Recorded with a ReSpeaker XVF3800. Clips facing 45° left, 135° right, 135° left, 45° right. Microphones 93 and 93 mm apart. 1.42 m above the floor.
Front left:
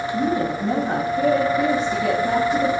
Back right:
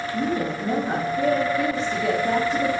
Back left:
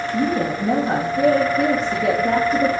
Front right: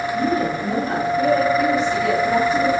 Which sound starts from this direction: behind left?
A woman speaking, at 0.1 s.